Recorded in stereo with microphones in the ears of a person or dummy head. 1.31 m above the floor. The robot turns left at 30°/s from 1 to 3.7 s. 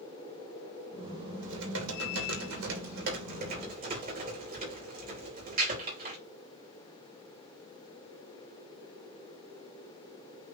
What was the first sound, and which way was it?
Typing on a keyboard, 65° right.